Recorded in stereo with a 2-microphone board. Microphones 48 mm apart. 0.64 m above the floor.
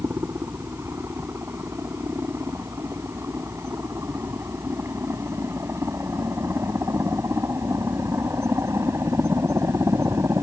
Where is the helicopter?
60° right (ahead or behind); by 10.4 s 75° right (ahead or behind).